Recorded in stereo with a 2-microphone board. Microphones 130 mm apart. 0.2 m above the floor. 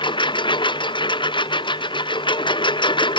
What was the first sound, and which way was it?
A lawn mower, 40° left (ahead or behind).